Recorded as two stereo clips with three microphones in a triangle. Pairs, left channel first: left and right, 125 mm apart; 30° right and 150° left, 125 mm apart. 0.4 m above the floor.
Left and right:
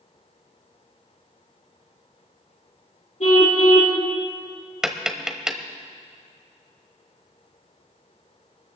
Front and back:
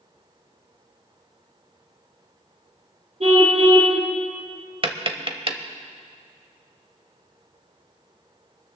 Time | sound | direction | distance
3.2 | a car horn | 115° left | 5.5 m
4.8 | tapping | 175° right | 1.1 m